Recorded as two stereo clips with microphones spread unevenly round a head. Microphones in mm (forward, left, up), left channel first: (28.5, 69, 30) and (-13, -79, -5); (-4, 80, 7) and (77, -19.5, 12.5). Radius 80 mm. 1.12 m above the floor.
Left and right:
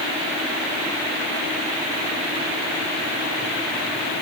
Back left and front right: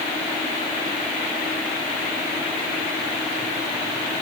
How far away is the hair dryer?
I don't hear a hair dryer.